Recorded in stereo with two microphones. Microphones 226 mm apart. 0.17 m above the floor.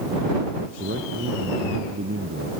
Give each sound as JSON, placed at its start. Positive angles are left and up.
{"t": 0.8, "sound": "a man speaking", "side_deg": -65}